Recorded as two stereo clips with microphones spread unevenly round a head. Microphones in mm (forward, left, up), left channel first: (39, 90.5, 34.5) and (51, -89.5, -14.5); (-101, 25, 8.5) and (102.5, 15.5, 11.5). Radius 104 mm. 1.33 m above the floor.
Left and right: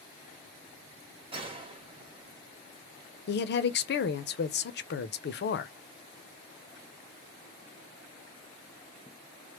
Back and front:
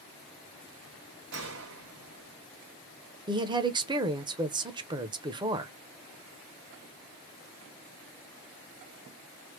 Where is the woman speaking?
65° left, 0.6 m.